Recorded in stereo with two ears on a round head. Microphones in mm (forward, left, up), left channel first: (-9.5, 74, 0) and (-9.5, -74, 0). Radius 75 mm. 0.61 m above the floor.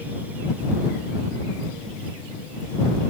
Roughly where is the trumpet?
I don't hear a trumpet.